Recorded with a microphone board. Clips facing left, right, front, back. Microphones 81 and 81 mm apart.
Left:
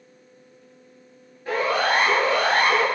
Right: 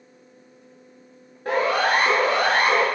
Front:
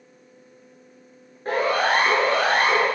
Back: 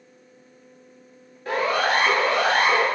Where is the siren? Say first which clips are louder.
Right 1 dB, front 1 dB; 55° right, 9.5 m; by 2.9 s 50° right, 8.5 m.